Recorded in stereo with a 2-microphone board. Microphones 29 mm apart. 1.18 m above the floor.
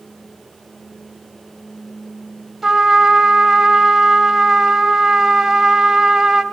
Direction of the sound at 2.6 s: 10° right (ahead or behind).